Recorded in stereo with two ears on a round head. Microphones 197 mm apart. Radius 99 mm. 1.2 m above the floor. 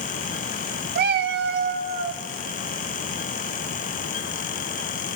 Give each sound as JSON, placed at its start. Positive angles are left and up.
{"t": 0.9, "sound": "a cat meowing", "side_deg": -45, "distance_m": 0.6}